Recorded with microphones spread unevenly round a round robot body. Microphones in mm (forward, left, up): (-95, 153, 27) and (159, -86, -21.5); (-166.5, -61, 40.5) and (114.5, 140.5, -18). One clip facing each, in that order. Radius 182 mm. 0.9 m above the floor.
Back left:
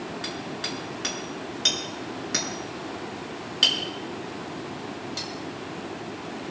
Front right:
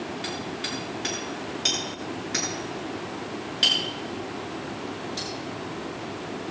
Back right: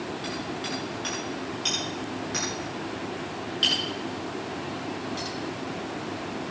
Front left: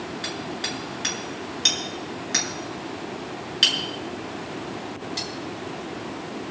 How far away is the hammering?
About 8 m.